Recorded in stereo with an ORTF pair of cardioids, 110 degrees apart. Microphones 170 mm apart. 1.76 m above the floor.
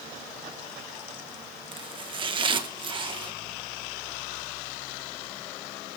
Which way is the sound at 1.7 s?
30° right.